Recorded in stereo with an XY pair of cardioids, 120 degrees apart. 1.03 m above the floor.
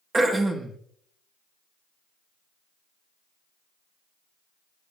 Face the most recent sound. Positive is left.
turn(degrees=-25)